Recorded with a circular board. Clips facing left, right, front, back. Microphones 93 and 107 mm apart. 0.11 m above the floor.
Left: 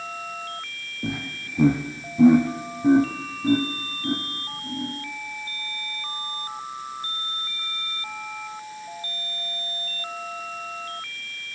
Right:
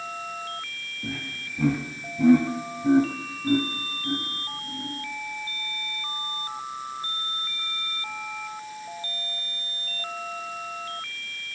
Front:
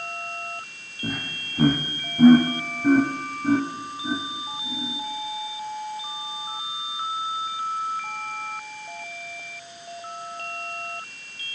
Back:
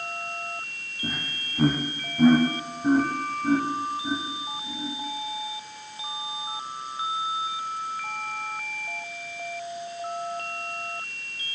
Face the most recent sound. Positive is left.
turn(degrees=85)